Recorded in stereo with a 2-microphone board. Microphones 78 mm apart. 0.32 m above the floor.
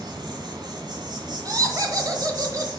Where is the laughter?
45° right (ahead or behind), 1.2 m.